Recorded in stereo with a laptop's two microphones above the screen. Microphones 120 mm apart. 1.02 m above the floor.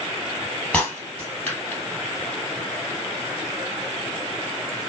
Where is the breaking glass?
10° left (ahead or behind), 2.5 m.